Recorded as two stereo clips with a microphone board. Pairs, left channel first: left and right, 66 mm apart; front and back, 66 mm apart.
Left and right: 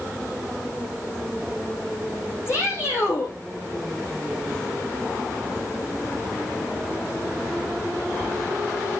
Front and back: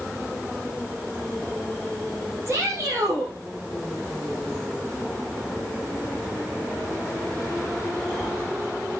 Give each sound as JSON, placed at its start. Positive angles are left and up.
{"t": 2.5, "sound": "a shout", "azimuth_deg": 135, "distance_m": 6.0}